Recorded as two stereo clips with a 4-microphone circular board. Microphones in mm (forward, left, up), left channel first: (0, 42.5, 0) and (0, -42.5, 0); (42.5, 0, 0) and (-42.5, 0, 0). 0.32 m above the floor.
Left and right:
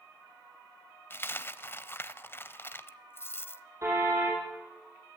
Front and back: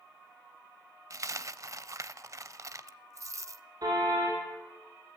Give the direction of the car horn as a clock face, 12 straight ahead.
5 o'clock.